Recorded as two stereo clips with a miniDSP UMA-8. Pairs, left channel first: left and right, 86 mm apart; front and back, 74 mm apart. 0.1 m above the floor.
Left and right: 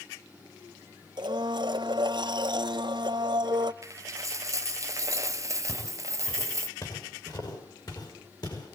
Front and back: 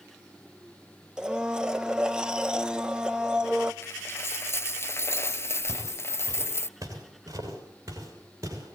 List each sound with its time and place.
1.2 s a blender: 100° right, 0.7 m
3.8 s a dropped coin: 50° right, 0.6 m
5.7 s footsteps: 140° left, 6.5 m; by 8.8 s 130° left, 8.5 m